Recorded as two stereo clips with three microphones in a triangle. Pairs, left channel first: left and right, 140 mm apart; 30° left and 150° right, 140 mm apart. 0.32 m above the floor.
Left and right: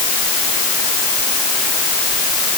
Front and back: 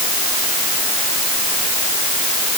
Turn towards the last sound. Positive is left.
No sound to turn to.